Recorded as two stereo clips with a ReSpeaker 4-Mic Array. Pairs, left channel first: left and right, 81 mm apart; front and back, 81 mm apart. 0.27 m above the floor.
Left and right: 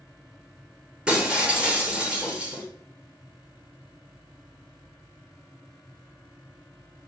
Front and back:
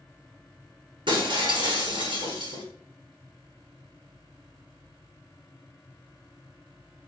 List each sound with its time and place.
1.1 s breaking glass: 170° right, 1.9 m